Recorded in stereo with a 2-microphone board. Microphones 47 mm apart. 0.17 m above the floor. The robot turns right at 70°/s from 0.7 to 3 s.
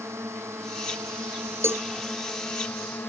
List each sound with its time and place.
0.0 s a drone: 105° right; by 3.1 s 55° left
1.6 s a cowbell: 60° right (ahead or behind); by 1.8 s 45° right (ahead or behind)